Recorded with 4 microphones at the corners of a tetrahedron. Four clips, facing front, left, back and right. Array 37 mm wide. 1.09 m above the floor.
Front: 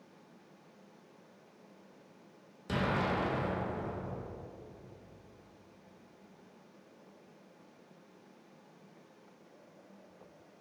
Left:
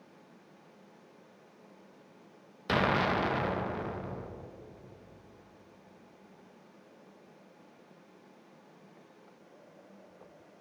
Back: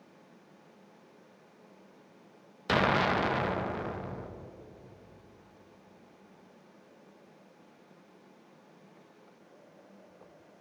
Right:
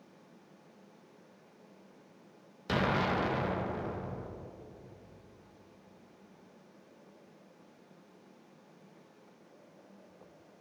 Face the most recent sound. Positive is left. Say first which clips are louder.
# left 2 dB, back 6 dB
turn(degrees=150)